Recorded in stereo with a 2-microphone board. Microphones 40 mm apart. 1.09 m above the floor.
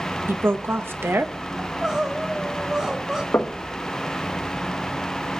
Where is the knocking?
80° left, 1.0 m.